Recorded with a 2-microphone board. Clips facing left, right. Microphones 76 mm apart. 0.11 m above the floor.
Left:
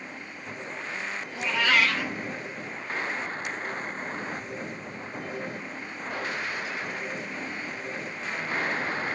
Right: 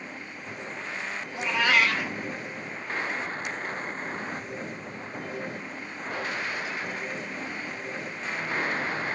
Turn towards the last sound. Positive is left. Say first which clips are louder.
# right 1 dB
turn(degrees=-20)  # may be behind; listen again after turning